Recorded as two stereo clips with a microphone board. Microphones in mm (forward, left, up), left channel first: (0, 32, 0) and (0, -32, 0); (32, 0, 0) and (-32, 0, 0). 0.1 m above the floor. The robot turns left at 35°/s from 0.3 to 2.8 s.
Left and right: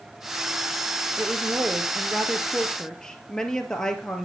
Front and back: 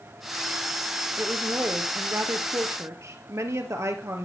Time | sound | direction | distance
1.2 | a woman speaking | 140° right | 2 m